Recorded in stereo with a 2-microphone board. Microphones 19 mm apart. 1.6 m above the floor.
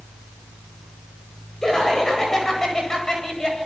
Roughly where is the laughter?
Left.